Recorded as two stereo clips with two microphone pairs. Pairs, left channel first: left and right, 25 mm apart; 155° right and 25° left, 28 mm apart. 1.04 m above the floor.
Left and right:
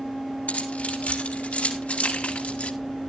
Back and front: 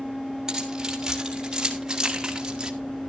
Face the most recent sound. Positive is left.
turn(degrees=90)